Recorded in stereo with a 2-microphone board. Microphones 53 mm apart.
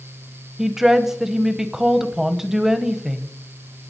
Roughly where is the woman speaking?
Centre.